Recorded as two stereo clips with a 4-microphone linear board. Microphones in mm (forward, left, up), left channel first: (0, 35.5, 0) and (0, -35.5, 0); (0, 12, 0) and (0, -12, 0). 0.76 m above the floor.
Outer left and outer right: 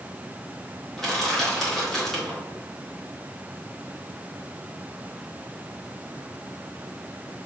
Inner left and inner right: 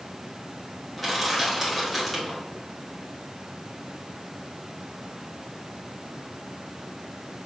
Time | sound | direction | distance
1.0 | crushing | 5° left (ahead or behind) | 1.5 m